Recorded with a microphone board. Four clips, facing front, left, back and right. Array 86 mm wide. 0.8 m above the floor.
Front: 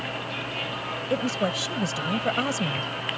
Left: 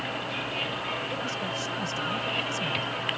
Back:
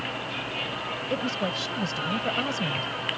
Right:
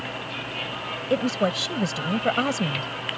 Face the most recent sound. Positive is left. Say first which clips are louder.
# right 9 dB, front 4 dB
turn(degrees=-75)